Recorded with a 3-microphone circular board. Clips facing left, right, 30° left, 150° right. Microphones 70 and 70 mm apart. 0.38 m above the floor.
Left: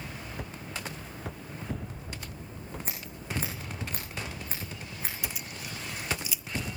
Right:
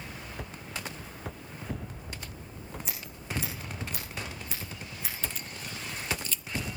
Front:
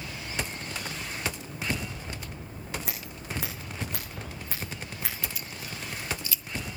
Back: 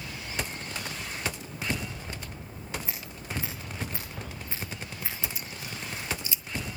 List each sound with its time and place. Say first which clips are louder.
2.9 s scissors: left 1 dB, front 1 dB; 40° left, 7 m
5.2 s keys jangling: even, even; 160° left, 0.6 m